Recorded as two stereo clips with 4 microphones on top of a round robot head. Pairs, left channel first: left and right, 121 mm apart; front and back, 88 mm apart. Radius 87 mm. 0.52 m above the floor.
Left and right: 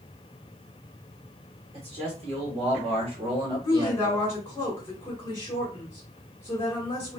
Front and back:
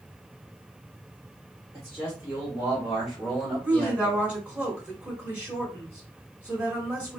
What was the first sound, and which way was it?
A man speaking, 115° right.